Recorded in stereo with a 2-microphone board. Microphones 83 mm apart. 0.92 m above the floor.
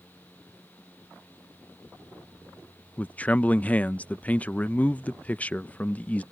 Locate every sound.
3.0 s a man speaking: 15° left (ahead or behind)